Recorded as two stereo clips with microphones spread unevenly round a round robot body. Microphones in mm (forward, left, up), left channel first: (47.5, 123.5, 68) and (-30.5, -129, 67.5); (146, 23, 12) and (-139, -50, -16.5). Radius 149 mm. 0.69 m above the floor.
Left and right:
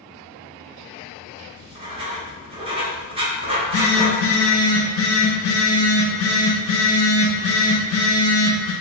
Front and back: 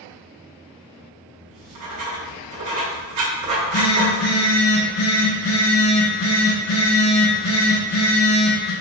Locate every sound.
1.5 s writing: 175° right, 0.9 m
3.5 s a phone buzzing: 50° left, 0.8 m